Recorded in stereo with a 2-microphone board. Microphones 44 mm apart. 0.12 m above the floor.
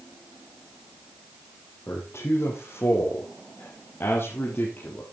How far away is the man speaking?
About 5 m.